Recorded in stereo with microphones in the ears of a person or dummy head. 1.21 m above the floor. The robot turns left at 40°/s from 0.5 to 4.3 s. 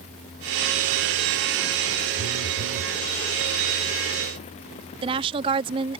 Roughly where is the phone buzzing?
Right.